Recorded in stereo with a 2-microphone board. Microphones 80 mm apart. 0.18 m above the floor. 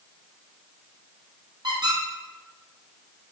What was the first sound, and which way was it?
A squeak, 60° right (ahead or behind).